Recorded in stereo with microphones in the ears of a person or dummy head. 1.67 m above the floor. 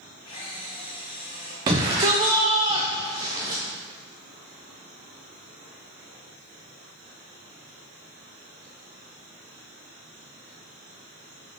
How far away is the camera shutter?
About 2.0 m.